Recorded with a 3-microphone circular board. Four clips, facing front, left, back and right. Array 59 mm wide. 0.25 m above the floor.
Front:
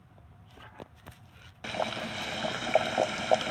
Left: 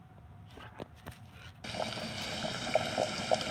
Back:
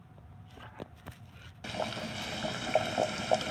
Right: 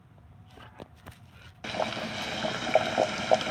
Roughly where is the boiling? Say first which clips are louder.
Right 7 dB, front 3 dB; ahead right.